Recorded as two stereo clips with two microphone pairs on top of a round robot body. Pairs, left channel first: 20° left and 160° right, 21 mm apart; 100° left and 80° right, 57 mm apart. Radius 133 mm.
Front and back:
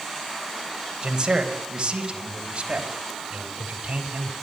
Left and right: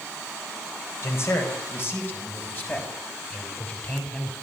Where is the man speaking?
145° left, 4.5 m; by 4.3 s 170° left, 5.5 m.